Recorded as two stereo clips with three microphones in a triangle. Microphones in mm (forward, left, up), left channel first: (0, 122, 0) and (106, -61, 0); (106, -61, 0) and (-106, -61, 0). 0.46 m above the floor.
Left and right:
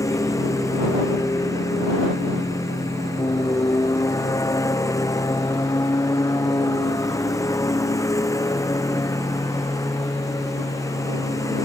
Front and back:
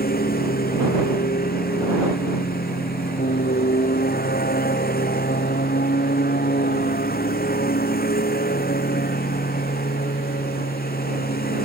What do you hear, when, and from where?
0.0 s a lawn mower: 45° left